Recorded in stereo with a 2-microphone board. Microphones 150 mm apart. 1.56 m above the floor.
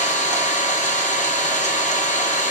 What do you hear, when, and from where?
0.0 s an engine running: 55° left (ahead or behind), 1.7 m